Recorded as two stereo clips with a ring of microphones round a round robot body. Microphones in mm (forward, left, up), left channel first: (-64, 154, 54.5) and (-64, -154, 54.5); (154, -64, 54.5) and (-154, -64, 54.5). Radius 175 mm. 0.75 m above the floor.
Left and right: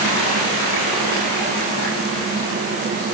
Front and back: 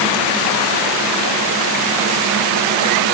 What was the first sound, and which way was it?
Only background noise.